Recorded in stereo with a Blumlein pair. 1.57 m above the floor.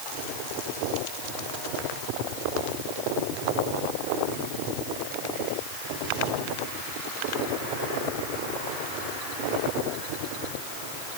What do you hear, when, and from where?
Only background noise.